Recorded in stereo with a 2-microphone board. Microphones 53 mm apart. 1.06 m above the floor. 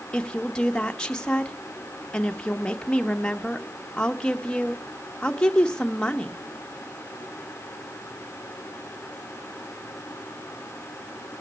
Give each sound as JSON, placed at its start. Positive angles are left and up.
{"t": 0.1, "sound": "a woman speaking", "side_deg": 15, "distance_m": 0.9}